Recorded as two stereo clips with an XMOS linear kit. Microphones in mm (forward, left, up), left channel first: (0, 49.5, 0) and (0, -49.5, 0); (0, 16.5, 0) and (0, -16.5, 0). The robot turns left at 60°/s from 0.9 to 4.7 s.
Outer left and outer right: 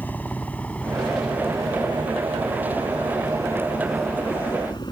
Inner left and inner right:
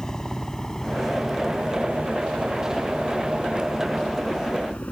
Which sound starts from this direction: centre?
A helicopter, at 0.0 s.